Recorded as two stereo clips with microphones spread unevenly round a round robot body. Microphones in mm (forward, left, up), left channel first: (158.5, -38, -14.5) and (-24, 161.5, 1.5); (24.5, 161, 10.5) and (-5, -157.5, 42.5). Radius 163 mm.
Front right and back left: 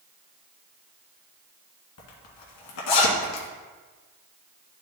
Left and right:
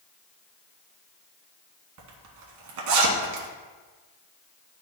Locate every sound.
2.0 s a zipper: 60° right, 1.7 m